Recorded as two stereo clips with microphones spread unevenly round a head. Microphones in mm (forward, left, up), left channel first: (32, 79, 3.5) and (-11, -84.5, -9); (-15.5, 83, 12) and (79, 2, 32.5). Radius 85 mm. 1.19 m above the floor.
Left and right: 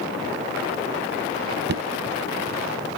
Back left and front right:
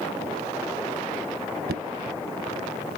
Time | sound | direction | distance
1.7 | knocking | 75° right | 0.6 m